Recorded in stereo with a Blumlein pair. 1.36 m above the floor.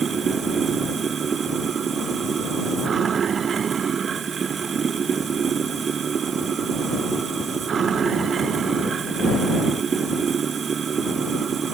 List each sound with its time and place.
0.0 s running water: 20° right